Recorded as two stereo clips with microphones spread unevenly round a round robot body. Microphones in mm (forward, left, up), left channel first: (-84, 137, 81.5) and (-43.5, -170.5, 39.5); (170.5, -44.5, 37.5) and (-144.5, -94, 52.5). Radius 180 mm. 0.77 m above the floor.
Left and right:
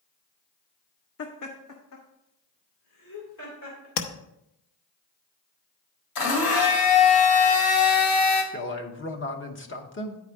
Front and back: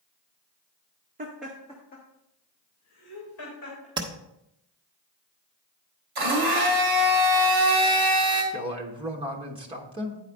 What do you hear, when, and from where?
1.2 s laughter: 130° left, 0.7 m; by 3.9 s 55° left, 4 m
4.0 s tapping: 110° left, 0.9 m
6.2 s a blender: 125° left, 2.0 m
8.5 s a man speaking: 125° left, 1.2 m